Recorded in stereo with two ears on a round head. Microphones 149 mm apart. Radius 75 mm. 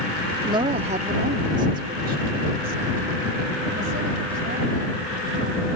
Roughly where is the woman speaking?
Right.